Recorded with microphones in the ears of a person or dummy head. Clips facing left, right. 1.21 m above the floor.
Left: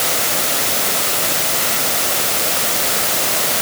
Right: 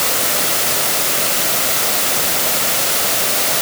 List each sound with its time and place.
Only background noise.